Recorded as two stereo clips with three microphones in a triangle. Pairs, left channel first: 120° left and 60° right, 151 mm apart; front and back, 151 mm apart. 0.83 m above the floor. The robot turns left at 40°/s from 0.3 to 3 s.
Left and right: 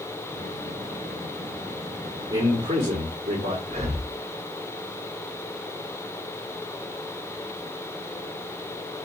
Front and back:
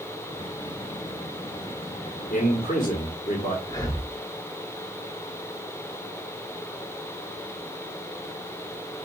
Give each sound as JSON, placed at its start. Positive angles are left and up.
{"t": 2.3, "sound": "a man speaking", "azimuth_deg": -15, "distance_m": 1.6}
{"t": 3.7, "sound": "breathing", "azimuth_deg": -55, "distance_m": 0.9}